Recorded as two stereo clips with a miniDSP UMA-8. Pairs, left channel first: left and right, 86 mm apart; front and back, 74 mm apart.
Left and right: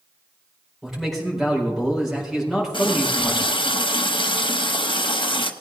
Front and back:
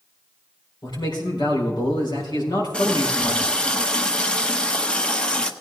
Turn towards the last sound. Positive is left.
turn(degrees=75)